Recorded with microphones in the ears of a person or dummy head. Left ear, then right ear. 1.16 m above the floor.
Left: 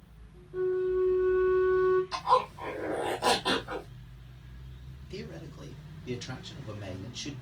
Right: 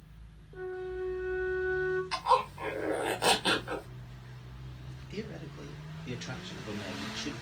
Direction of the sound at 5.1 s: 25° right (ahead or behind).